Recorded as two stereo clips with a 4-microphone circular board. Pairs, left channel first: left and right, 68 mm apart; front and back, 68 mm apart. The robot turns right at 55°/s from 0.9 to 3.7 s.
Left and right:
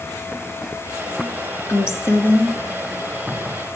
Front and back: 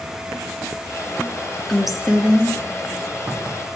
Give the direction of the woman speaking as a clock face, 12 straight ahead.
9 o'clock.